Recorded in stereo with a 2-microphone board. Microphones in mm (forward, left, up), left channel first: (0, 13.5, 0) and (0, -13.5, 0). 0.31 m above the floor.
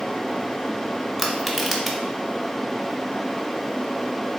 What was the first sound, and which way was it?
Crushing, centre (ahead or behind).